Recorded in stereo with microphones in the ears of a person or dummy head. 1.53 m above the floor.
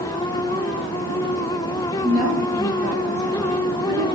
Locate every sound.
2.0 s a woman speaking: 25° right (ahead or behind), 3 m